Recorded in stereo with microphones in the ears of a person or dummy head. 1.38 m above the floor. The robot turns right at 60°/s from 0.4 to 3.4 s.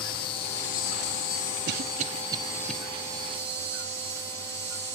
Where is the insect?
35° left, 1.1 m; by 5.0 s 145° right, 1.1 m.